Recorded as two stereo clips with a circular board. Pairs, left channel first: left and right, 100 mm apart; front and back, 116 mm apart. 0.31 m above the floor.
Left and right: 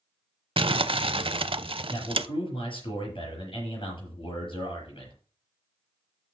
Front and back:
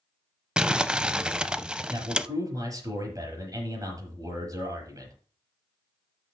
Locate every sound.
0.6 s crumpling: 100° right, 0.6 m
1.9 s a man speaking: 120° left, 5.5 m